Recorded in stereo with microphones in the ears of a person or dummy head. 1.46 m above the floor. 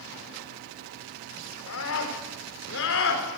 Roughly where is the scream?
Left.